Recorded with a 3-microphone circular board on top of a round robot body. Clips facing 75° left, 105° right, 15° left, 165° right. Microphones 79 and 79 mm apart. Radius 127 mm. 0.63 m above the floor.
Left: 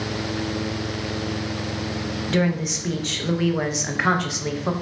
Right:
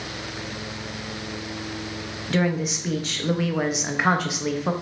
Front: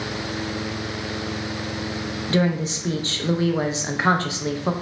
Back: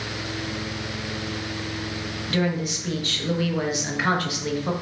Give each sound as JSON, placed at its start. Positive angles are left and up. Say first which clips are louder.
{"t": 2.3, "sound": "a woman speaking", "louder": "even, front 3 dB", "azimuth_deg": -20, "distance_m": 0.7}